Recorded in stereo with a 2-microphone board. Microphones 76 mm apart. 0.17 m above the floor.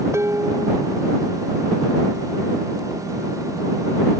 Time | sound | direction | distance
0.1 | dishes clattering | 40° right (ahead or behind) | ?